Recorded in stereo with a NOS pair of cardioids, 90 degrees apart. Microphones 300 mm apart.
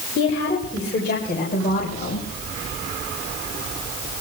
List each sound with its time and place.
0.1 s a woman speaking: 40° left, 6 m; by 2.2 s 20° left, 6 m